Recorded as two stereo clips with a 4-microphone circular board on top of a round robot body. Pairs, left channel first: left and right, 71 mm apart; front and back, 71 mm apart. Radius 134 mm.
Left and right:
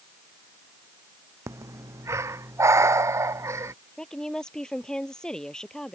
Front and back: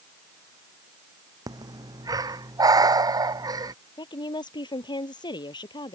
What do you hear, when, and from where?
1.5 s breathing: 140° right
4.0 s a woman speaking: 10° left